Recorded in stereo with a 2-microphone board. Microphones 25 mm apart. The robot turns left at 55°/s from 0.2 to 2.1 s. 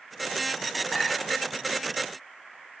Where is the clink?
5° left (ahead or behind), 1.9 m; by 1.4 s 30° left (ahead or behind), 1.9 m.